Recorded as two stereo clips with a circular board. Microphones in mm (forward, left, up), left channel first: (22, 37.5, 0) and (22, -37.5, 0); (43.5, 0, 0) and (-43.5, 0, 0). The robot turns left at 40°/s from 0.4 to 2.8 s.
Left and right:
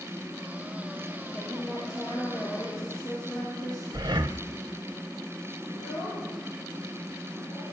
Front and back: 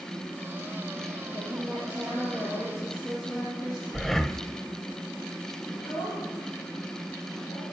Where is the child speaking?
95° left, 7.5 m.